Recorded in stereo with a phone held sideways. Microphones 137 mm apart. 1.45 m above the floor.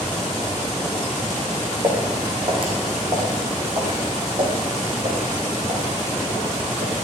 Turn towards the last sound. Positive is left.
turn(degrees=-50)  # may be behind; listen again after turning